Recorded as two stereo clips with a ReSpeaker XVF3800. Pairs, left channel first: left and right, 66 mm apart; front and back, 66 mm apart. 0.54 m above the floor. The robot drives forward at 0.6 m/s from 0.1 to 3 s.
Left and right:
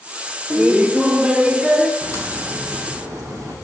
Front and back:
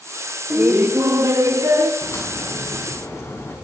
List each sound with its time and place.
0.5 s laughter: 140° right, 0.7 m; by 1.9 s 165° right, 1.4 m
2.0 s a crack: 45° right, 4.5 m; by 3.5 s 55° right, 4 m